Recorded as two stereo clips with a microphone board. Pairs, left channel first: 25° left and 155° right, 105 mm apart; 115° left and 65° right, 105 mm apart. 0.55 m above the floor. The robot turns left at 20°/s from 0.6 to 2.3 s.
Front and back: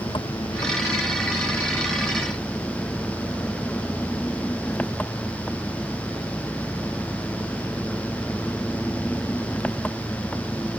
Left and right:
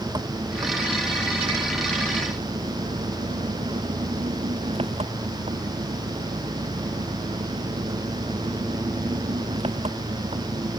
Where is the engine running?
20° right; by 10.8 s 55° right.